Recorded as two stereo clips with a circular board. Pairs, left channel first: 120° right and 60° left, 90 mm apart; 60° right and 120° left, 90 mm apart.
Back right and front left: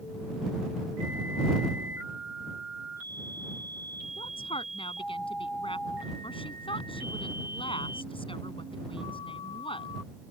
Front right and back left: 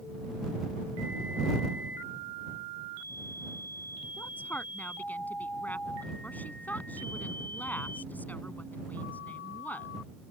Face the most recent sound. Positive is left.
turn(degrees=-130)